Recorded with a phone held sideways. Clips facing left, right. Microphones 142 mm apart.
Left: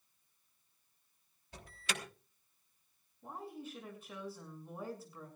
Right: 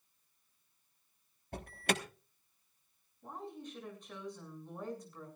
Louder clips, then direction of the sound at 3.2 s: Even; 5° left (ahead or behind).